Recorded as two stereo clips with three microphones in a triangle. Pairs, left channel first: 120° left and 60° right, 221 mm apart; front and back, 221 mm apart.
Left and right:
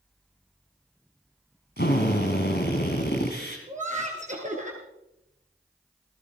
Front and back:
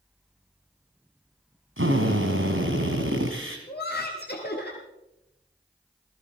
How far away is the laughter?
About 2 m.